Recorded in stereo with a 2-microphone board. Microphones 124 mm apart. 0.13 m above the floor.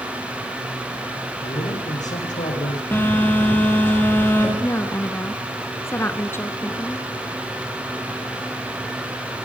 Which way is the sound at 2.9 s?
15° left (ahead or behind).